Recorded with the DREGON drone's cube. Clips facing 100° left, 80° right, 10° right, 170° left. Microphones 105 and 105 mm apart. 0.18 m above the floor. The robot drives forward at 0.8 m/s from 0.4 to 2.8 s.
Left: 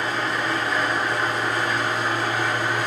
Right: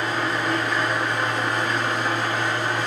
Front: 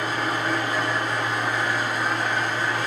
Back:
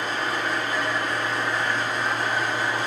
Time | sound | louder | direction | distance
0.0 | an engine running | right 1 dB, front 1 dB | 10° left | 1.9 m